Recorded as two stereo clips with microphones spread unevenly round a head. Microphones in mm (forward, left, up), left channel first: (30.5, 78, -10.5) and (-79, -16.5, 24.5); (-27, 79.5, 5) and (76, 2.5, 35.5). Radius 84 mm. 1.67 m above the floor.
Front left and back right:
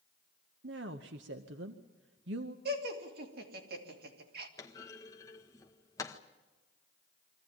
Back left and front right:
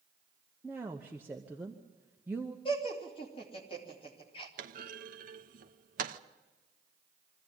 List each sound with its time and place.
0.6 s a woman speaking: 115° right, 0.9 m
2.6 s laughter: 150° right, 3 m
4.6 s a clunk: 40° right, 0.9 m